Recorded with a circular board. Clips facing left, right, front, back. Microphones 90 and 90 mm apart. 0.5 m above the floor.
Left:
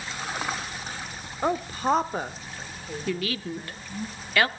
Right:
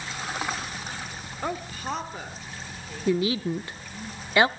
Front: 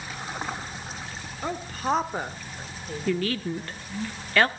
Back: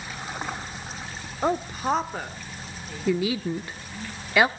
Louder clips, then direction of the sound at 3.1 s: Right 6 dB, back 2 dB; 115° right.